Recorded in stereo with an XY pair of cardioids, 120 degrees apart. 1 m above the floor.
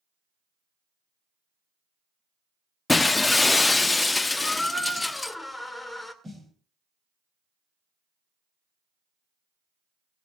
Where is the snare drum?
15° right, 3 m.